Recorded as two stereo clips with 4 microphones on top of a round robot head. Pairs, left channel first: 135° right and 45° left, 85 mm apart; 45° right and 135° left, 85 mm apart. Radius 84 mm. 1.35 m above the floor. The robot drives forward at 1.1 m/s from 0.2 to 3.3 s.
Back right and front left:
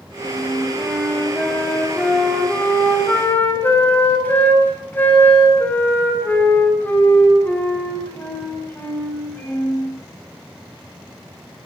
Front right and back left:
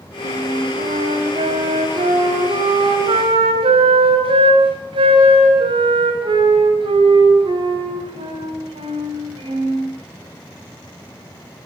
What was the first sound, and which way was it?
A flute, 130° left.